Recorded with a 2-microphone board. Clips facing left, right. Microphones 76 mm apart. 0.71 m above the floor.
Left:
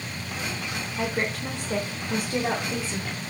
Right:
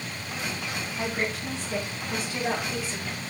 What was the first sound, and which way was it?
A woman speaking, 60° left (ahead or behind).